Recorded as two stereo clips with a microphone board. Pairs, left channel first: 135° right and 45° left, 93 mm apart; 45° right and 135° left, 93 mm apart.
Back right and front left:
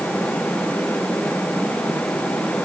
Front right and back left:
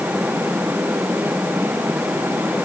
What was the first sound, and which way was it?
Only background noise.